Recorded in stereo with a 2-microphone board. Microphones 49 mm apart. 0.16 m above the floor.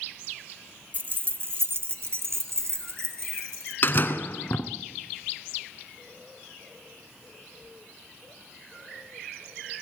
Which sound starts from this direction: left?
A door slam, at 3.8 s.